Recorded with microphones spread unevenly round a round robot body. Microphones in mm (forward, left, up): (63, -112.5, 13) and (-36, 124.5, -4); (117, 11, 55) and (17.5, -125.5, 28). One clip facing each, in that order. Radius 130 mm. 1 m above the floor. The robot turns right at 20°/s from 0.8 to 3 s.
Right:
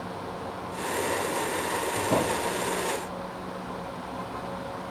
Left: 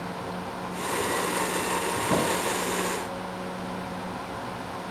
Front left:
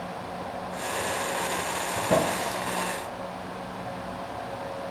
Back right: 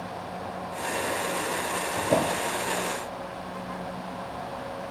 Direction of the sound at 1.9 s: 50° left.